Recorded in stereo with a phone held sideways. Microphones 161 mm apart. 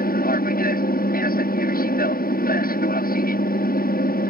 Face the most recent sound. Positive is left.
turn(degrees=65)  # may be behind; listen again after turning